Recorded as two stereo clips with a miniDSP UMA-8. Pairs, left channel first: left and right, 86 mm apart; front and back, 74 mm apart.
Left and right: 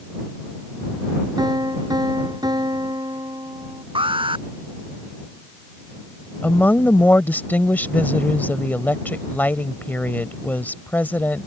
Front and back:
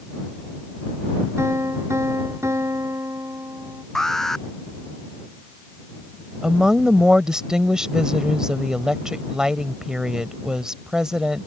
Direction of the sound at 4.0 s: 85° right.